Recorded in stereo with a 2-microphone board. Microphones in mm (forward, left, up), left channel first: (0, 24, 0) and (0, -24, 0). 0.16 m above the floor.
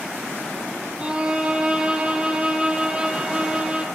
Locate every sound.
1.0 s a violin: 20° right (ahead or behind), 1.9 m